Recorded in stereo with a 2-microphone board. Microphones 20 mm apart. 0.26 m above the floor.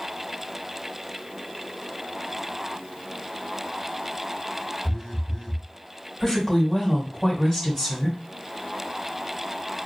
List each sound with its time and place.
4.8 s a phone buzzing: 45° left (ahead or behind), 0.8 m
6.2 s a woman speaking: 30° left (ahead or behind), 1.7 m